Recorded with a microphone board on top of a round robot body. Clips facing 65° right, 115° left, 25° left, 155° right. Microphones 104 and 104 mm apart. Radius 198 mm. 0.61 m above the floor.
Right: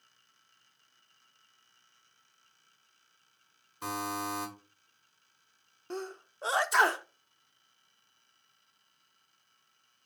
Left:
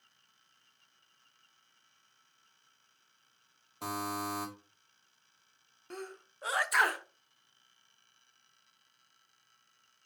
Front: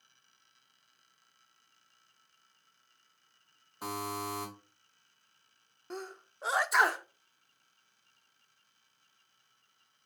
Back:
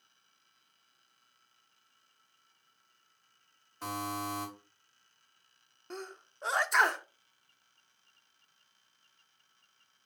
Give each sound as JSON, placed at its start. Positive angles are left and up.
{"t": 3.8, "sound": "a buzzer", "azimuth_deg": 100, "distance_m": 2.0}
{"t": 5.9, "sound": "a sneeze", "azimuth_deg": -60, "distance_m": 0.5}